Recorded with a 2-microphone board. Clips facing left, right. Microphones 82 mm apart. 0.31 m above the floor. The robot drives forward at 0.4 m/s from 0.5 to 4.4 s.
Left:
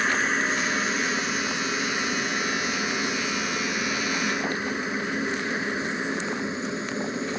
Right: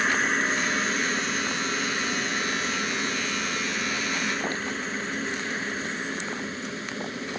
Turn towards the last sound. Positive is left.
turn(degrees=20)  # may be behind; listen again after turning